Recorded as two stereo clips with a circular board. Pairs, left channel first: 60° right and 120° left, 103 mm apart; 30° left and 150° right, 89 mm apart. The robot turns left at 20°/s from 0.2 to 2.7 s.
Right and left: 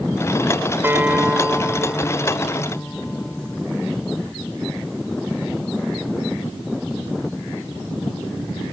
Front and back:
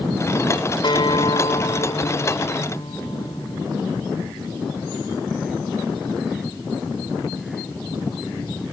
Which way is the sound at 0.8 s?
50° left.